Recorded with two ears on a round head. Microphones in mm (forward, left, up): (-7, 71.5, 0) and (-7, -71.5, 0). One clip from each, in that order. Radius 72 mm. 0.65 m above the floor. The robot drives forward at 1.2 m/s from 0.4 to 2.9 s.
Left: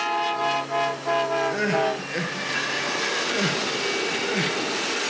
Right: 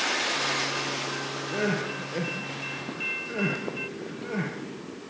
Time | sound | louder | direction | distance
1.5 | crying | left 6 dB | 75° left (ahead or behind) | 4.5 m